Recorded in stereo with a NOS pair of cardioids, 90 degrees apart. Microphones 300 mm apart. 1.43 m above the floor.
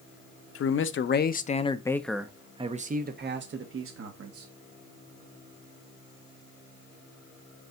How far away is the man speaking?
About 1.1 m.